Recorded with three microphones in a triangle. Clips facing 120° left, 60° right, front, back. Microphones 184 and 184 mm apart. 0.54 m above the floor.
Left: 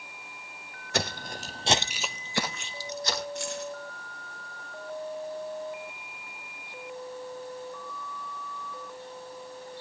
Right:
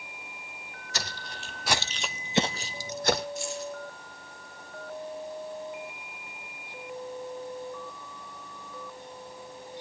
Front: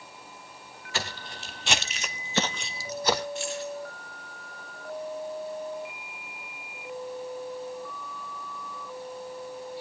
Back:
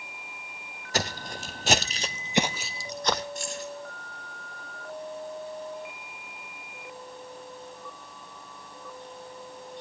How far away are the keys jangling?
About 4.5 m.